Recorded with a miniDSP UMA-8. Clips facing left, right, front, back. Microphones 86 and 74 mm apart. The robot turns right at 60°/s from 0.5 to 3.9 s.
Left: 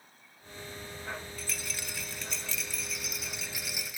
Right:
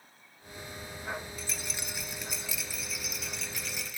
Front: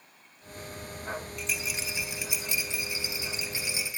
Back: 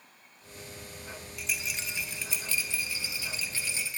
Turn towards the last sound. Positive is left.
turn(degrees=50)